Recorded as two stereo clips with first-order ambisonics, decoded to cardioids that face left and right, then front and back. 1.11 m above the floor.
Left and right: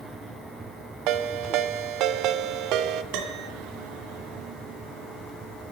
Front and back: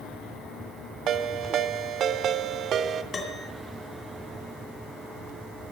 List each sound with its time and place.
1.1 s a ringtone: 125° right, 1.0 m
3.1 s a piano: 70° right, 2 m